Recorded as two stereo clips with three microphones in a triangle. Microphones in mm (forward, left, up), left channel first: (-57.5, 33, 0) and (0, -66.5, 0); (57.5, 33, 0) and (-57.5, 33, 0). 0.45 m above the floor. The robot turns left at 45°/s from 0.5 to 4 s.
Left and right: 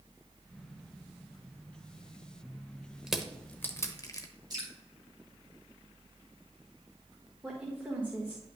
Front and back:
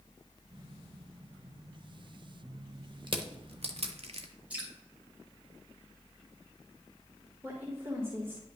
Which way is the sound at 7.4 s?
125° right.